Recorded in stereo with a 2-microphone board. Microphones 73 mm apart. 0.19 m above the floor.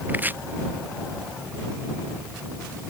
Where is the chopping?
25° right (ahead or behind).